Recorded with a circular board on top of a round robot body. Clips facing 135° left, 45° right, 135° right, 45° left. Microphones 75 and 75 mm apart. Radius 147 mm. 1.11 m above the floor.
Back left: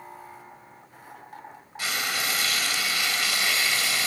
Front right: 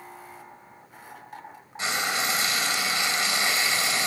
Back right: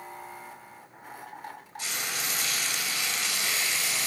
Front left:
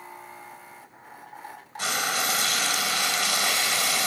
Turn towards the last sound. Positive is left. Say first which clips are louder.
# front right 2 dB, front left 8 dB
turn(degrees=15)